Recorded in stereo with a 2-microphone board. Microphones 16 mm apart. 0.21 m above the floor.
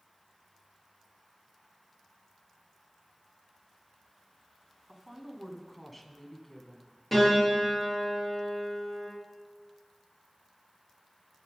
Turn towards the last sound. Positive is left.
turn(degrees=0)  # may be behind; listen again after turning